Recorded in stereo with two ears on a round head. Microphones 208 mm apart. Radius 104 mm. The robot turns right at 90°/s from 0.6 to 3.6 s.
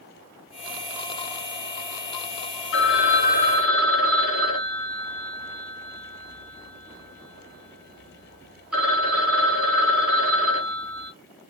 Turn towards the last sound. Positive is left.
turn(degrees=180)